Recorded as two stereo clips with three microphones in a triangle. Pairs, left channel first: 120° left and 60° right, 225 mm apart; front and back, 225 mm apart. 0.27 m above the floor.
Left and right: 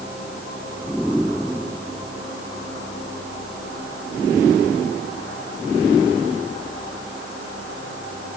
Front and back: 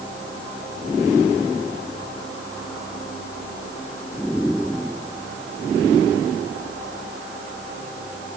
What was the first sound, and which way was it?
Only background noise.